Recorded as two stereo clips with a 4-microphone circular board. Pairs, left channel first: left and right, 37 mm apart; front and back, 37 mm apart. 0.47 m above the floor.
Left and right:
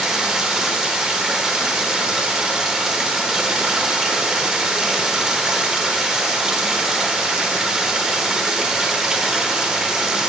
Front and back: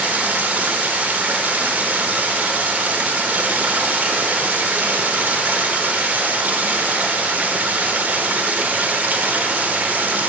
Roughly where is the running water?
Behind.